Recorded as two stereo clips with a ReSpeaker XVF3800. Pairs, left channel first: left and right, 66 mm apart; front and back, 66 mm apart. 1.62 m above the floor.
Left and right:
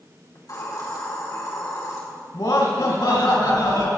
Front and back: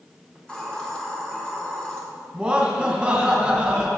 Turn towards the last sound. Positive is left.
turn(degrees=100)